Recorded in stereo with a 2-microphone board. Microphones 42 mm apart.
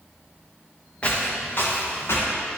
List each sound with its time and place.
1.0 s footsteps: 25° left (ahead or behind), 1.6 m; by 2.3 s 60° left (ahead or behind), 2.5 m